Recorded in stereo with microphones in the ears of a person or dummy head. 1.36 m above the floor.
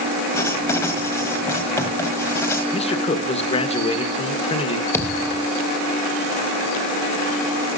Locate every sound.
0.3 s writing: 15° left (ahead or behind), 1.4 m
2.7 s a man speaking: 30° left (ahead or behind), 1.4 m
4.9 s a thud: 10° left (ahead or behind), 1.4 m